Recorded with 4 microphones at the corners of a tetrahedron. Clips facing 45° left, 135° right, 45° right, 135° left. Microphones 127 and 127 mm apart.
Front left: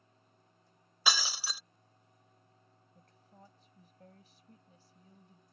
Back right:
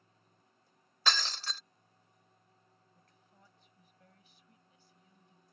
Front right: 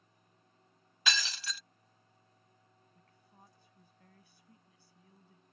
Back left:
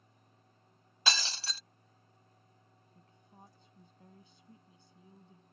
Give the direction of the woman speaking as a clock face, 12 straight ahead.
9 o'clock.